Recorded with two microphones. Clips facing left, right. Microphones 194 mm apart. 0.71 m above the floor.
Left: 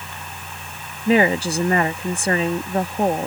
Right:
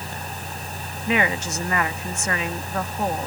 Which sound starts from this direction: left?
A woman speaking, at 1.1 s.